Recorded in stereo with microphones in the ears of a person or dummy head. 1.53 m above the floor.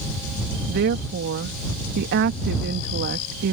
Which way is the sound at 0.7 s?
60° right (ahead or behind).